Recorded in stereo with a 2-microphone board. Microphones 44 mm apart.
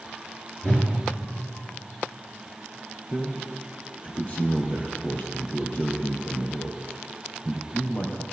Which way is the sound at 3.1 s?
40° left (ahead or behind).